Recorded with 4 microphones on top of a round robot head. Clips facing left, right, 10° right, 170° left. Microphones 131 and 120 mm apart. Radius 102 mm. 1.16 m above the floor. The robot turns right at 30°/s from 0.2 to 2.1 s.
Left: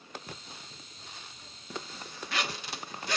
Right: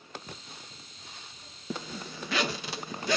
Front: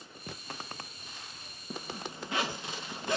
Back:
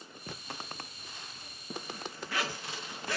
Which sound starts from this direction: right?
A zipper, at 1.7 s.